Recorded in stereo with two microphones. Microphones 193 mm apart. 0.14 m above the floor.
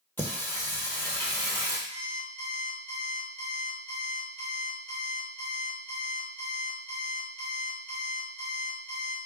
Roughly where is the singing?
Centre.